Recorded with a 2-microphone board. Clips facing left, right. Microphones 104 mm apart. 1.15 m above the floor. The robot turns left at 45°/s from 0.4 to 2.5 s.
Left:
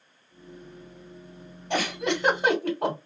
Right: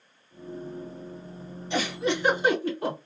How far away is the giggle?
About 1.9 m.